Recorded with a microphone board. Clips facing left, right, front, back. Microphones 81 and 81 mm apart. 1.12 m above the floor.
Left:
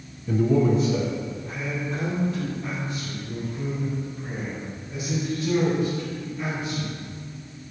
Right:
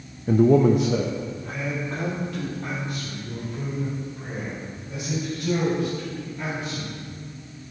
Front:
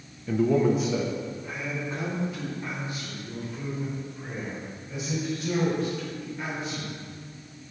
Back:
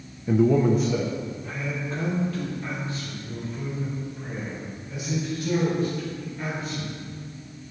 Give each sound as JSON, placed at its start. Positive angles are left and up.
{"t": 0.3, "sound": "a man speaking", "azimuth_deg": -110, "distance_m": 0.6}